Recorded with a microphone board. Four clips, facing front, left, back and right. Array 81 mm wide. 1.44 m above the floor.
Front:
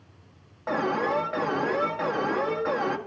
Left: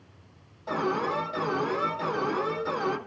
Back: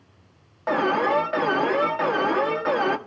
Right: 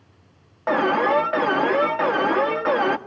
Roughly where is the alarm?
Right.